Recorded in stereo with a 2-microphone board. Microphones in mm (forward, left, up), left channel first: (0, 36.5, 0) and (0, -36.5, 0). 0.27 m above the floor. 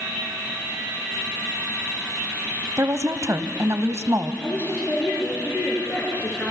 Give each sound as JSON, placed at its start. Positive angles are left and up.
{"t": 2.8, "sound": "a woman speaking", "side_deg": -45, "distance_m": 1.2}
{"t": 4.4, "sound": "a woman speaking", "side_deg": 30, "distance_m": 4.5}